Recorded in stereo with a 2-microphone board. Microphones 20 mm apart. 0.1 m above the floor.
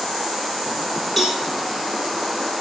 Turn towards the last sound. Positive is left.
turn(degrees=-20)  # may be behind; listen again after turning